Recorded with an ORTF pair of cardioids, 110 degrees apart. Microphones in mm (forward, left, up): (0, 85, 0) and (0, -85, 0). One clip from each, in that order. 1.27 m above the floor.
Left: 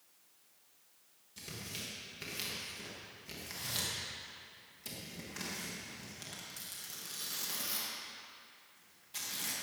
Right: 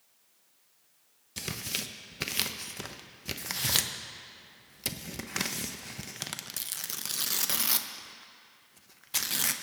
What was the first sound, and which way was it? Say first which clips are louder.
Tearing paper: right 9 dB; 70° right.